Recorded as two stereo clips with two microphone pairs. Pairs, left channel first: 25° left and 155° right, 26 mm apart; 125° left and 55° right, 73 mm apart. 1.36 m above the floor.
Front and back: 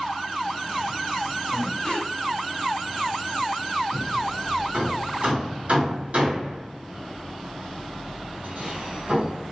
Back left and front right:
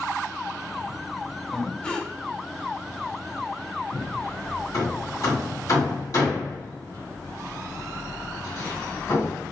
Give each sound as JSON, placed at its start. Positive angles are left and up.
{"t": 1.5, "sound": "breathing", "azimuth_deg": 50, "distance_m": 0.7}
{"t": 3.9, "sound": "hammering", "azimuth_deg": 170, "distance_m": 1.9}